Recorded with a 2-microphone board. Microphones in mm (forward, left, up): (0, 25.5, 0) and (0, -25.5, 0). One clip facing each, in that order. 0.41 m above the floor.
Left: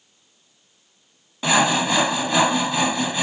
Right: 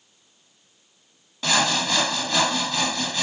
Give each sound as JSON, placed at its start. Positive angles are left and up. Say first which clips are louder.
{"t": 1.4, "sound": "sawing", "louder": "left 4 dB", "side_deg": 15}